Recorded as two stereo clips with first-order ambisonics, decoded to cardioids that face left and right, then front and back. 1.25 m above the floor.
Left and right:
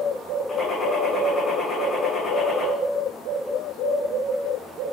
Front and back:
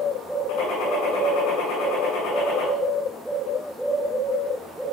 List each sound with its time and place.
0.5 s a gunshot: 15° left, 9.5 m